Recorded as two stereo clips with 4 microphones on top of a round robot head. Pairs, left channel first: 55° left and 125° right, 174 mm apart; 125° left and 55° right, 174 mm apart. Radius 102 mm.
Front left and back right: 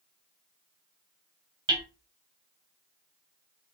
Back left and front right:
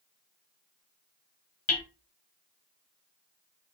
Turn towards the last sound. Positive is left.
turn(degrees=170)